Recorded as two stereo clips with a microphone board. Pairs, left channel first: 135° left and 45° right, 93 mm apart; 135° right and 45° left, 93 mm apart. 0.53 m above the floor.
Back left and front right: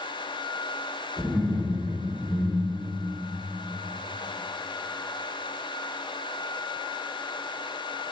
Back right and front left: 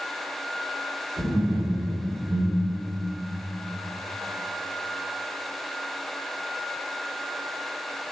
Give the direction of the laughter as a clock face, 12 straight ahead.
9 o'clock.